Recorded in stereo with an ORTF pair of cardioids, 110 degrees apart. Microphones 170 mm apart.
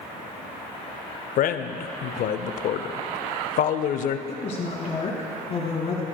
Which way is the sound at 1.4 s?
60° left.